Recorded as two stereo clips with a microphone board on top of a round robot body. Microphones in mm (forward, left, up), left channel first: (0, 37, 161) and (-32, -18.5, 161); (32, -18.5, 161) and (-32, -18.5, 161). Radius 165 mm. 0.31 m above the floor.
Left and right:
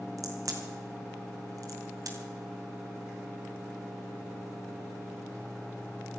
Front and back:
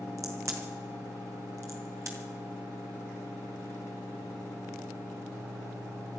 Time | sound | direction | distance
0.2 | a crack | 145° right | 2.5 m